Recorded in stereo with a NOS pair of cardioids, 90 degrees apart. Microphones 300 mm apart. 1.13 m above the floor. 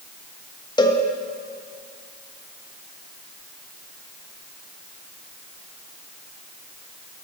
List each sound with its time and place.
0.8 s a cowbell: 15° left, 1.1 m